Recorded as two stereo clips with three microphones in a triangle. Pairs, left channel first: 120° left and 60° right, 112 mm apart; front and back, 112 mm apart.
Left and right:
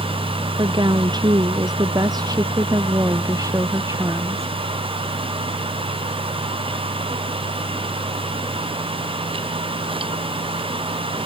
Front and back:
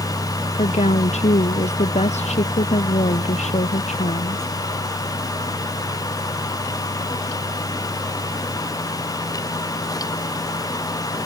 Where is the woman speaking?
10° right; by 4.6 s 5° left.